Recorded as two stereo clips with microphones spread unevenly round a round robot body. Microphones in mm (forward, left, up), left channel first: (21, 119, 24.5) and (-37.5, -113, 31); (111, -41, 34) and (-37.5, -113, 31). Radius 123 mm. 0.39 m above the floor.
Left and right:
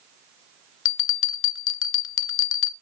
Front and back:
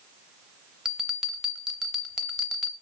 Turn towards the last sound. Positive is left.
turn(degrees=120)